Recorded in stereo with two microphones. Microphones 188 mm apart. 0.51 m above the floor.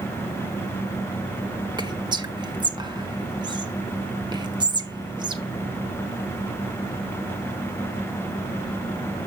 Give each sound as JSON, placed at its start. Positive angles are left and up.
{"t": 1.8, "sound": "whispering", "side_deg": -25, "distance_m": 0.8}